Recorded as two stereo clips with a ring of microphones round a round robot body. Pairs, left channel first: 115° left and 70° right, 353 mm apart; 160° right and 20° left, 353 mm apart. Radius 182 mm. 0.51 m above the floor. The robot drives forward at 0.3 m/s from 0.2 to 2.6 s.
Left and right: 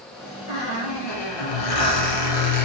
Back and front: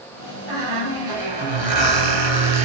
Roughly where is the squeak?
Ahead left.